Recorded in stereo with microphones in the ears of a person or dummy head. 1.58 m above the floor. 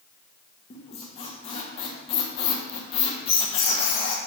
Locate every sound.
0.7 s a squeak: 30° left (ahead or behind), 1.1 m